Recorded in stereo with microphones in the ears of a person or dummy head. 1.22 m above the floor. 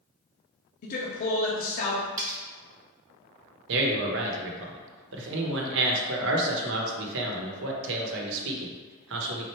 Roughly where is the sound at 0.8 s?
Left.